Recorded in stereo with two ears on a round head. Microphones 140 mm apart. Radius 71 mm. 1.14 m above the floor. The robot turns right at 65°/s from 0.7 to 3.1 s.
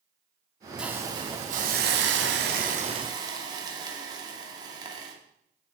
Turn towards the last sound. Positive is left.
turn(degrees=-25)